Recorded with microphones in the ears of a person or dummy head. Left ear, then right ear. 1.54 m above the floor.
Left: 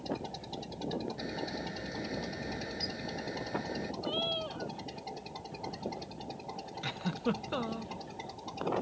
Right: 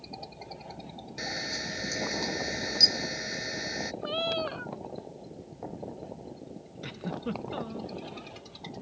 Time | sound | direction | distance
1.2 | a camera shutter | 70° right (ahead or behind) | ?
4.0 | a cat meowing | 60° right (ahead or behind) | ?
6.8 | a giggle | 25° left (ahead or behind) | ?